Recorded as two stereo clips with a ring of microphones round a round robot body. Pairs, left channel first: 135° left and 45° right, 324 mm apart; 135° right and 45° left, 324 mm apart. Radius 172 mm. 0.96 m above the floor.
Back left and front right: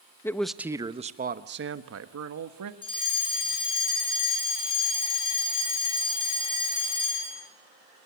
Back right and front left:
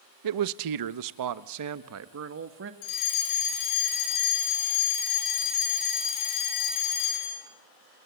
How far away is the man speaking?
About 1.0 m.